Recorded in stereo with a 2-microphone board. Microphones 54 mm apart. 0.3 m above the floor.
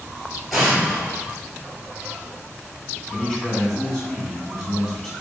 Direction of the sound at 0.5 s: Centre (ahead or behind).